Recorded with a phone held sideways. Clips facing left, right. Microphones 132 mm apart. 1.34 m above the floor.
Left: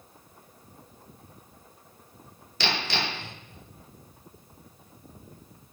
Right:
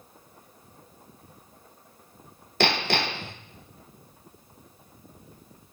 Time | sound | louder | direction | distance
2.6 | hammering | right 5 dB | 55° right (ahead or behind) | 0.7 m